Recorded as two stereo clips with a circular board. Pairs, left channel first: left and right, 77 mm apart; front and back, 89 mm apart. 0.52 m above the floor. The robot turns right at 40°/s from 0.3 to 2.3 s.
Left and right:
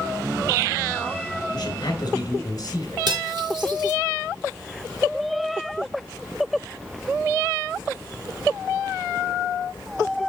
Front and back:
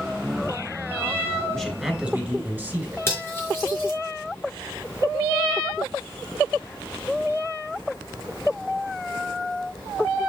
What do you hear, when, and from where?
1.5 s a man speaking: 85° left, 3 m; by 3.0 s 115° left, 3 m
3.1 s cutlery clinking: 60° right, 4.5 m